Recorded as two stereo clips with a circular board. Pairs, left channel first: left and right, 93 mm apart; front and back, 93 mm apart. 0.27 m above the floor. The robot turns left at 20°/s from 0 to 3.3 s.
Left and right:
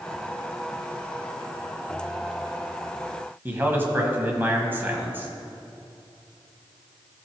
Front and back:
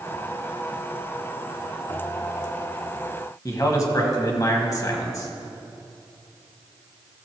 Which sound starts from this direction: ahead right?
A man speaking, at 3.5 s.